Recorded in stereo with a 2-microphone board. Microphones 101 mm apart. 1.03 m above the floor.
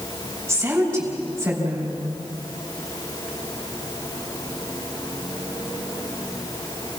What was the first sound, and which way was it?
A woman speaking, 20° right (ahead or behind).